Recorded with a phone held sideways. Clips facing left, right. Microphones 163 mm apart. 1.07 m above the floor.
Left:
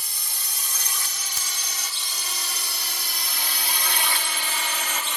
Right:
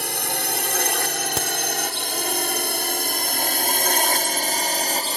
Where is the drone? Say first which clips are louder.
Right 16 dB; 70° right (ahead or behind); by 5.2 s 35° right (ahead or behind).